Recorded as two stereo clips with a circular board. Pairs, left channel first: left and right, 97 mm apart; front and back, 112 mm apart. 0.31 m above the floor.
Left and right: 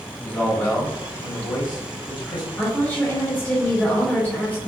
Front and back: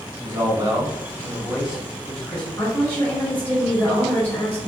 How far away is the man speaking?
About 1.4 m.